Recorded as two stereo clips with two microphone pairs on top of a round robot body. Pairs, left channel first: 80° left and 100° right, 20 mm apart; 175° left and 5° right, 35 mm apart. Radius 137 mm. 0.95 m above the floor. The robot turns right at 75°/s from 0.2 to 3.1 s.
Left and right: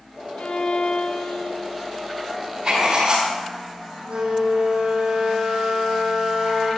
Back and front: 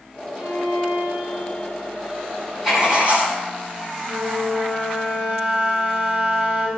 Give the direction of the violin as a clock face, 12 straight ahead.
10 o'clock.